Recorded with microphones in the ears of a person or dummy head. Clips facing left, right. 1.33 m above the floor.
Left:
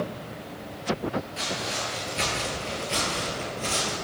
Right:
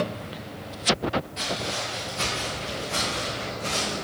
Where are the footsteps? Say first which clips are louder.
Right 1 dB; 10° left (ahead or behind), 1.6 m; by 4.0 s 60° left (ahead or behind), 2.5 m.